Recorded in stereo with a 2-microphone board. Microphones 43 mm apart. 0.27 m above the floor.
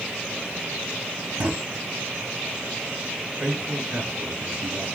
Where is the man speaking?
65° right (ahead or behind), 5 m.